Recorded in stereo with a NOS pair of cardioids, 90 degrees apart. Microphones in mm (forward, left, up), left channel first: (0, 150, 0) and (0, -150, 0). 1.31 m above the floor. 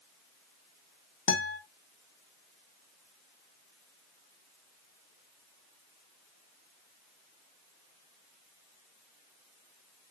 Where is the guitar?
45° left, 2 m.